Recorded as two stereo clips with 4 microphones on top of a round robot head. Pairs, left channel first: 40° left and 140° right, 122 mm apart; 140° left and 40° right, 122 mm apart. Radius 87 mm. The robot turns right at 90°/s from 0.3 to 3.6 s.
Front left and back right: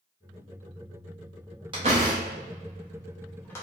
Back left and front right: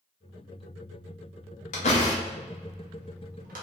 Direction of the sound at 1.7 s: 165° left.